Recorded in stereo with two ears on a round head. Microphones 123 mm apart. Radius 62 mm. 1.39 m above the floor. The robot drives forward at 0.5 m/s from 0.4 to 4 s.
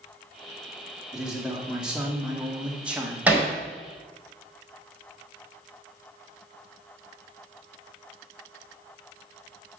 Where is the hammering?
10° right (ahead or behind), 3.5 m.